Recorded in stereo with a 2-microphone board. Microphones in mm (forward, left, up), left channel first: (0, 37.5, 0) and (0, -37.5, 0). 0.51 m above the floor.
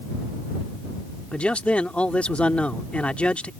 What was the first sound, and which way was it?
A man speaking, 15° left (ahead or behind).